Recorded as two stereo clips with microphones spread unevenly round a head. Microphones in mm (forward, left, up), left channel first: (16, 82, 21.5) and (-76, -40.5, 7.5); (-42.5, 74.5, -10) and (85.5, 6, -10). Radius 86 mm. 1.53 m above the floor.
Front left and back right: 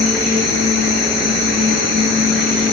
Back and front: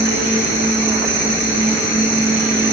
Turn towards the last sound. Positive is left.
turn(degrees=-35)